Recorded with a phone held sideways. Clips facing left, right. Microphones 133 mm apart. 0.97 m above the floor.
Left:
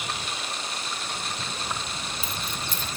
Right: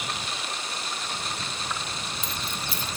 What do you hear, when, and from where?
1.7 s keys jangling: 20° left (ahead or behind); by 3.0 s 20° right (ahead or behind)